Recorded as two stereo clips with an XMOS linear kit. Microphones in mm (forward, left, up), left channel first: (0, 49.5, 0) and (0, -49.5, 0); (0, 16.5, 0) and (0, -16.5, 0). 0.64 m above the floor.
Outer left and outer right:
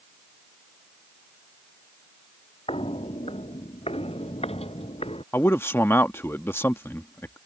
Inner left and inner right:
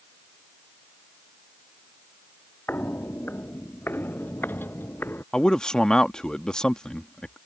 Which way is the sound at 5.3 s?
25° left (ahead or behind).